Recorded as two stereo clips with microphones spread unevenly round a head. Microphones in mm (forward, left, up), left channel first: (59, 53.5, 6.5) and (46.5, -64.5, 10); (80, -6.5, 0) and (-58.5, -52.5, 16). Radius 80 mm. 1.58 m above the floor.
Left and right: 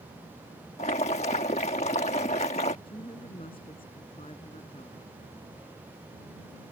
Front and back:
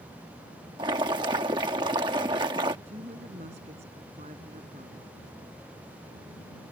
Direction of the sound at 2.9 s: 145° left.